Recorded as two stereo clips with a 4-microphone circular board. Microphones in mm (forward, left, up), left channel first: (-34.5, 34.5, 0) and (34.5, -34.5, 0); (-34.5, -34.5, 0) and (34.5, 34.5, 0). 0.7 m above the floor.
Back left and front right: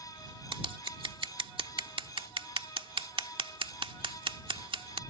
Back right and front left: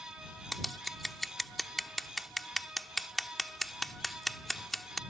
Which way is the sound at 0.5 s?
45° right.